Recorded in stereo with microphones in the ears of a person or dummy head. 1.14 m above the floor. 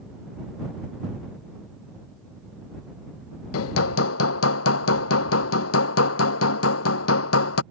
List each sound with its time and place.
3.5 s hammering: 75° left (ahead or behind)